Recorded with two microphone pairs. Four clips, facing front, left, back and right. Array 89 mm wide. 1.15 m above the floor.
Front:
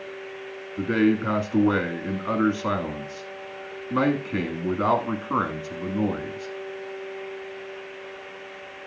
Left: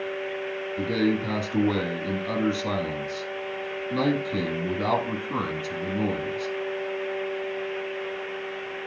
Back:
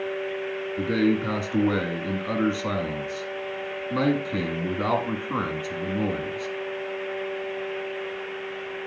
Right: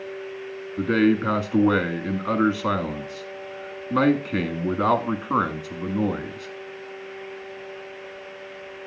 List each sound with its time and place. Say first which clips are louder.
0.8 s a man speaking: right 5 dB, front 2 dB; 80° right, 1.7 m